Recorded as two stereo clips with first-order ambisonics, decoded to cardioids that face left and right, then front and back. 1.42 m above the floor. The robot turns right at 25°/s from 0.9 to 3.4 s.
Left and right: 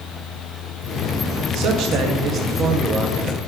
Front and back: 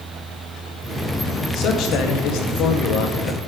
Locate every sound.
1.5 s a man speaking: 50° right, 2.0 m; by 3.4 s 5° right, 2.0 m